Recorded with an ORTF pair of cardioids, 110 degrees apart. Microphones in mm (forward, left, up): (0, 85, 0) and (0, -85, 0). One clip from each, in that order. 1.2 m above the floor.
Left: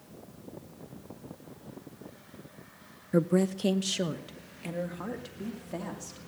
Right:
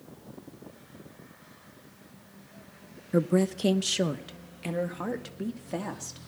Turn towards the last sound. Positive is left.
turn(degrees=-30)